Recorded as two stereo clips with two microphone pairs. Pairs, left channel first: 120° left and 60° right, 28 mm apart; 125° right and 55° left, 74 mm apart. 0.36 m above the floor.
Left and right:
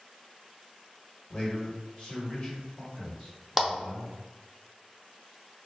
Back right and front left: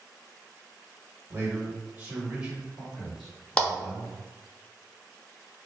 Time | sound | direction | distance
1.3 | a man speaking | 85° left | 1.4 m
3.6 | a clap | 140° right | 0.6 m